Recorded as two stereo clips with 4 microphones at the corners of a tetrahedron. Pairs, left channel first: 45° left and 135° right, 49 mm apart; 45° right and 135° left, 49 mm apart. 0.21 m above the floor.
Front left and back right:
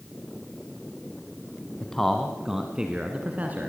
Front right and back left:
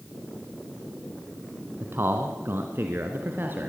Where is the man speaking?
115° left, 1.6 m; by 3.7 s 175° left, 2.5 m.